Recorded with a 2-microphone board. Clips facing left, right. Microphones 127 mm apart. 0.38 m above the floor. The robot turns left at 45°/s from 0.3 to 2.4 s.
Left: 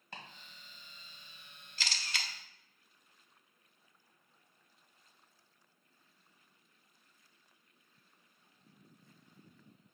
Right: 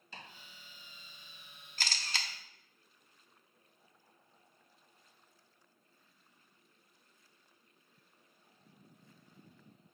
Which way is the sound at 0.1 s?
60° left (ahead or behind).